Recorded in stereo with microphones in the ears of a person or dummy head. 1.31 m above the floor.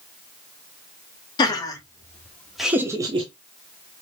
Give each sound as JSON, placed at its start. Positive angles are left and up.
{"t": 1.4, "sound": "laughter", "side_deg": 25, "distance_m": 1.0}